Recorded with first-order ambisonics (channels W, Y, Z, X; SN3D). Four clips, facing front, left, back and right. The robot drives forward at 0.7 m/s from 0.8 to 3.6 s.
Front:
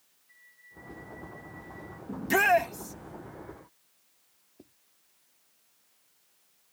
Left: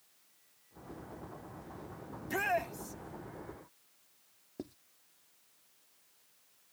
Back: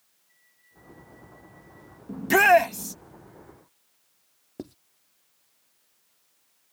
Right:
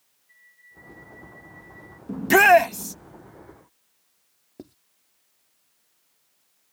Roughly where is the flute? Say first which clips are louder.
Right 12 dB, front 7 dB; ahead right.